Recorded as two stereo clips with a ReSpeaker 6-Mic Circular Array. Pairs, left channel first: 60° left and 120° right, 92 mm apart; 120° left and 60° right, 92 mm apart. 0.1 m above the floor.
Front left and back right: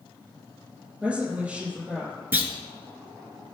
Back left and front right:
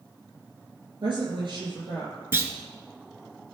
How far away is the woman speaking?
About 4 m.